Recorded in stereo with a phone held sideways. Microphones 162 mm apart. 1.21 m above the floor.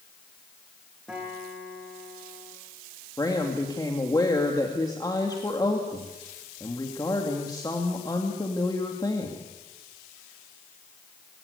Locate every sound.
1.1 s a guitar: 5° right (ahead or behind), 9.5 m
3.2 s a woman speaking: 25° left (ahead or behind), 2.5 m